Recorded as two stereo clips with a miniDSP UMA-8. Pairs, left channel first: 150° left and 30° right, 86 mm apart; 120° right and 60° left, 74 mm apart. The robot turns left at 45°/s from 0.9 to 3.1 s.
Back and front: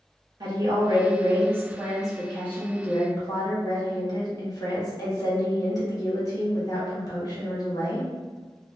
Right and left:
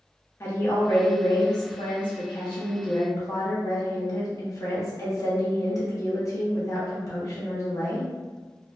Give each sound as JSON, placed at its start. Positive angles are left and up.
{"t": 0.4, "sound": "a woman speaking", "azimuth_deg": -65, "distance_m": 1.0}